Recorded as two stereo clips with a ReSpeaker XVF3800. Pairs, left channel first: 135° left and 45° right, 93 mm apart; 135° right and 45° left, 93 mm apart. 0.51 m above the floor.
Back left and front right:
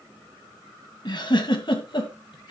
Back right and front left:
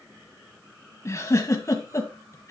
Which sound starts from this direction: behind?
A giggle, at 1.1 s.